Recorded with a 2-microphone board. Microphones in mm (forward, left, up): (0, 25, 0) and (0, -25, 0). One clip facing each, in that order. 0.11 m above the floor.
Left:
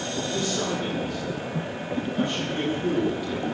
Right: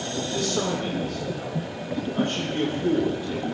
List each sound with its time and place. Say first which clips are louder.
0.3 s a man speaking: right 2 dB; 60° right (ahead or behind), 5 m; by 3.4 s 25° right (ahead or behind), 4 m